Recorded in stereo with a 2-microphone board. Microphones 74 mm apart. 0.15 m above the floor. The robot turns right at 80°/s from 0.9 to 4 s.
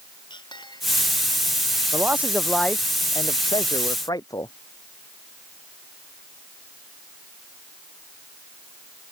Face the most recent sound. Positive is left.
turn(degrees=125)